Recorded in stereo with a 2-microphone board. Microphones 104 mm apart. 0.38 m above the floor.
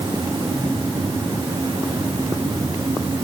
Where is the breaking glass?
No breaking glass in this recording.